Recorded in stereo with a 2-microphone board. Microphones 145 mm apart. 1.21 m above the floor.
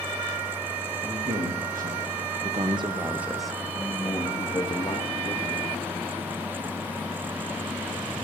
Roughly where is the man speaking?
Right.